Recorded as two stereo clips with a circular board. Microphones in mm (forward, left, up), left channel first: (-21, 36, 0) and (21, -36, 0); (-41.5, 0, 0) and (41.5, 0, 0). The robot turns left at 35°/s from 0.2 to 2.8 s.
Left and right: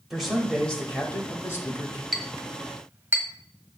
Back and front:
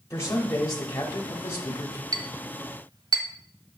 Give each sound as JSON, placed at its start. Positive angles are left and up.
{"t": 0.1, "sound": "a man speaking", "azimuth_deg": -150, "distance_m": 1.2}
{"t": 2.1, "sound": "a clink", "azimuth_deg": 30, "distance_m": 1.3}